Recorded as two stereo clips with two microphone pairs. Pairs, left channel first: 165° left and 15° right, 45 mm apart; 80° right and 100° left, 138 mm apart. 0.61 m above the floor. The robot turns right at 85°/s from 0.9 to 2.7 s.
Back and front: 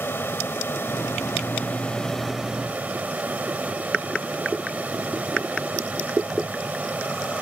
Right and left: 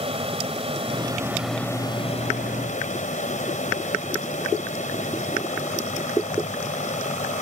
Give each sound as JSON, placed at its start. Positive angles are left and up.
{"t": 0.0, "sound": "an aircraft", "azimuth_deg": 140}